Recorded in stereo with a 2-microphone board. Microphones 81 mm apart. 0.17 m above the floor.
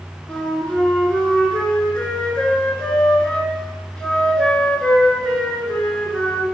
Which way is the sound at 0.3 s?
10° left (ahead or behind).